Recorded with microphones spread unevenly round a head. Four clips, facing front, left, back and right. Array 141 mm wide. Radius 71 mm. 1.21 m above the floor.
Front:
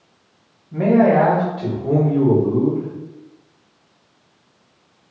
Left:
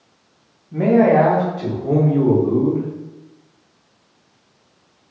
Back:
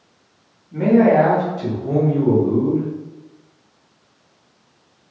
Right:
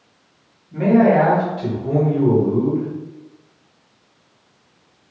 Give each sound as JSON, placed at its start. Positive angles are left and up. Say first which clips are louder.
{"t": 0.7, "sound": "a man speaking", "louder": "even, back 1 dB", "azimuth_deg": 40, "distance_m": 1.7}